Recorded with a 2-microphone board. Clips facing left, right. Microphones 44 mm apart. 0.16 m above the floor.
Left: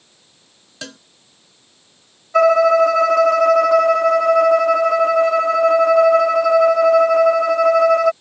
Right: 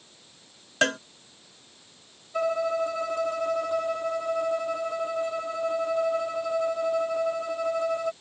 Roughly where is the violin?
Left.